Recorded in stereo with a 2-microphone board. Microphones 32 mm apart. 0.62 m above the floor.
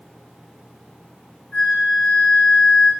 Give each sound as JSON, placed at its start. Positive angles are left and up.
{"t": 1.5, "sound": "a flute", "side_deg": 30, "distance_m": 1.8}